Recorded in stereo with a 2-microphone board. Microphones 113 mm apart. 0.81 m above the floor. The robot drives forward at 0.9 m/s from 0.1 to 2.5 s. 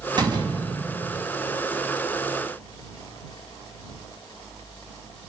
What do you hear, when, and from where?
0.2 s a door slam: 40° right (ahead or behind), 5 m; by 1.2 s 50° right (ahead or behind), 4 m